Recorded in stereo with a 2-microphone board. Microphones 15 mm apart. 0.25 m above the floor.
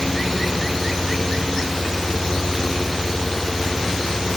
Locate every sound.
Only background noise.